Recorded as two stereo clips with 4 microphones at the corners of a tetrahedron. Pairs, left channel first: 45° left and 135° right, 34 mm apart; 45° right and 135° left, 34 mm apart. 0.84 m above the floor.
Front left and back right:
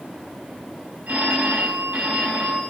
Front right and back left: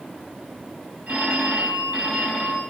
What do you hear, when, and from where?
1.1 s a phone ringing: straight behind, 4 m